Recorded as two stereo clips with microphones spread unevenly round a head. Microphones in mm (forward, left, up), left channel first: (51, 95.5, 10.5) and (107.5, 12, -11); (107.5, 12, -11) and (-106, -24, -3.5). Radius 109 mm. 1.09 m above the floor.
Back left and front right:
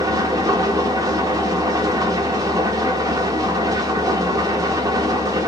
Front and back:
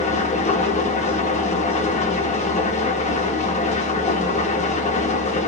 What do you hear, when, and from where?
0.0 s an engine running: 15° right, 0.7 m